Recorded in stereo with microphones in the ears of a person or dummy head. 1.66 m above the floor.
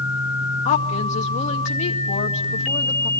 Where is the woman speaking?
40° left (ahead or behind), 1.8 m.